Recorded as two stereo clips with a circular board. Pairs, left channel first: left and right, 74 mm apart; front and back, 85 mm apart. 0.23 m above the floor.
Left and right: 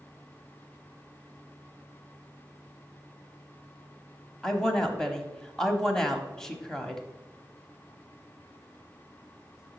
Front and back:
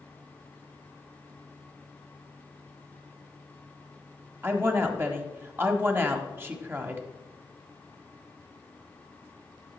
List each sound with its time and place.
4.4 s a woman speaking: 160° left, 1.0 m